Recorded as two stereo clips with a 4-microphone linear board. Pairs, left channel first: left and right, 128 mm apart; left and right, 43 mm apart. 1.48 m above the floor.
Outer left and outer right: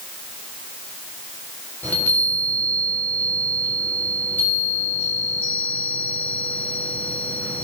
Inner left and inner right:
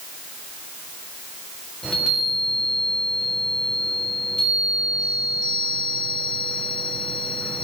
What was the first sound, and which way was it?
A chime, 15° left (ahead or behind).